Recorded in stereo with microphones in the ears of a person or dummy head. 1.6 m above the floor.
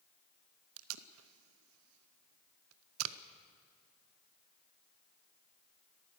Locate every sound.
0.8 s tape being pulled: 85° right, 0.9 m